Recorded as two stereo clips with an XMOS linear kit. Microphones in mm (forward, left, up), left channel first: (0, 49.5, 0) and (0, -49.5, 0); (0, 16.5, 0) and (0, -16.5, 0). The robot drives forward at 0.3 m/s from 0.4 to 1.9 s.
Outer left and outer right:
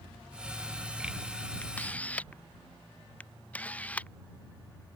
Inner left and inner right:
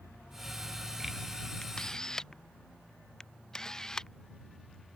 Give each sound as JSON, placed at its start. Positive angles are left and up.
{"t": 1.6, "sound": "a camera shutter", "side_deg": 15}